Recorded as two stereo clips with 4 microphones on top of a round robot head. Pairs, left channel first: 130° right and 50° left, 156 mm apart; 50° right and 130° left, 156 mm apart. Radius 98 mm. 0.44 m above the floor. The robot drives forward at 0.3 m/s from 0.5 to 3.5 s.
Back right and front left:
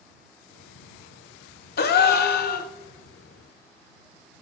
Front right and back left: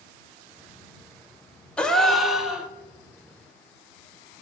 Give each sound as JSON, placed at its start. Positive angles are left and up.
{"t": 1.8, "sound": "a gasp", "azimuth_deg": -135, "distance_m": 0.7}